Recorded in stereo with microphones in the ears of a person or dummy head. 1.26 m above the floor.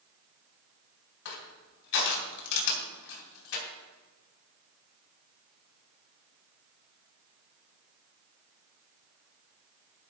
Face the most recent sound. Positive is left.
turn(degrees=70)  # may be behind; listen again after turning